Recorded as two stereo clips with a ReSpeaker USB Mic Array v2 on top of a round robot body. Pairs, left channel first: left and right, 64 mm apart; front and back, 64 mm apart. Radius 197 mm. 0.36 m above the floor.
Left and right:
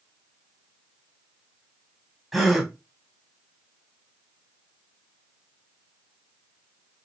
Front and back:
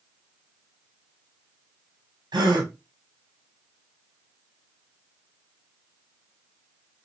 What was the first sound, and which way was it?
A gasp, 175° right.